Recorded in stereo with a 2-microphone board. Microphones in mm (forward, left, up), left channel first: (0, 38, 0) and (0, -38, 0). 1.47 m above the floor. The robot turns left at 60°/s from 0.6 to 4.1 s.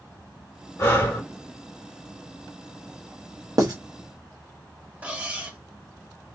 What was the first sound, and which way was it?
Breathing, 40° left (ahead or behind).